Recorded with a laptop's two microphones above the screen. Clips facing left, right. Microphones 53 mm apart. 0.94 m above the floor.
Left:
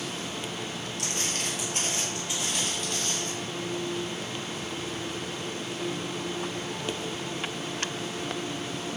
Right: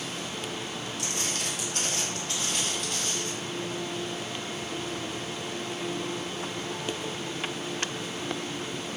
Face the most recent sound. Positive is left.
turn(degrees=-15)  # may be behind; listen again after turning